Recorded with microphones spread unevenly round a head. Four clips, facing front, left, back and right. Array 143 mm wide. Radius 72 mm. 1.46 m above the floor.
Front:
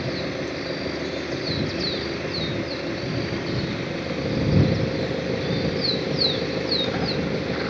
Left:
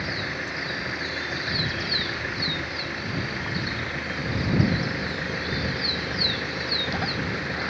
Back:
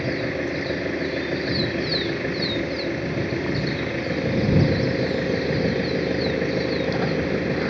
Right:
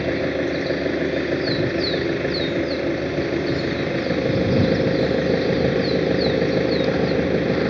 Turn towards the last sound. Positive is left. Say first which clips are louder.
# right 11 dB, back 2 dB
turn(degrees=-105)